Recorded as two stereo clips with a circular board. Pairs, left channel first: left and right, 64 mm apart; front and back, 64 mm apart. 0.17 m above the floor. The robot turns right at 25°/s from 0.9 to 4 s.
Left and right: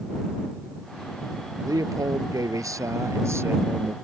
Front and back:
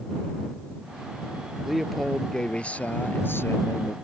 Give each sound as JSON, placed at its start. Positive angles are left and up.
{"t": 1.6, "sound": "a man speaking", "azimuth_deg": -95}